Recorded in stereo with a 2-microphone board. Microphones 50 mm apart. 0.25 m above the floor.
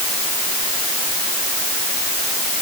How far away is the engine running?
No engine running in this recording.